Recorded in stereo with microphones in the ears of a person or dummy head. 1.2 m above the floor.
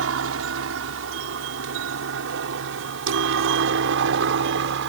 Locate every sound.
0.0 s a helicopter: 65° right (ahead or behind); by 4.9 s 60° right (ahead or behind)